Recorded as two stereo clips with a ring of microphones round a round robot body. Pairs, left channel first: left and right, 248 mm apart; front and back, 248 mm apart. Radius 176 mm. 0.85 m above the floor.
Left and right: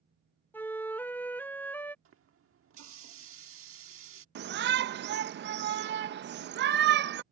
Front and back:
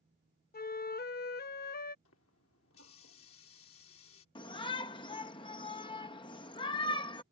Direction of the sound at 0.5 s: 10° left.